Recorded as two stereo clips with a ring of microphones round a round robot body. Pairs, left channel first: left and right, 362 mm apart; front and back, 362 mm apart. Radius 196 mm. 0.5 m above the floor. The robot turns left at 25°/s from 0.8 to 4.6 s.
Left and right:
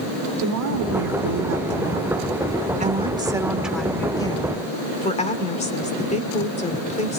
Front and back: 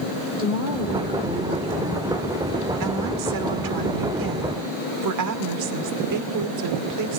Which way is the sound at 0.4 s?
105° right.